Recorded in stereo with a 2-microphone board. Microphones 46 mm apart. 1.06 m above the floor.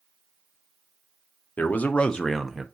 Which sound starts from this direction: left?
A man speaking, at 1.6 s.